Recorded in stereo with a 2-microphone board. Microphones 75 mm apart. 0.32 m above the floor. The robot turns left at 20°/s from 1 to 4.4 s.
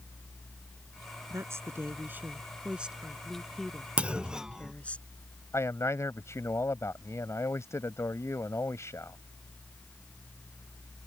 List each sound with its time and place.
1.3 s a woman speaking: 135° right; by 5.0 s 160° left
4.0 s a clunk: 15° right (ahead or behind); by 4.7 s 10° right (ahead or behind)
5.5 s a man speaking: 40° left (ahead or behind)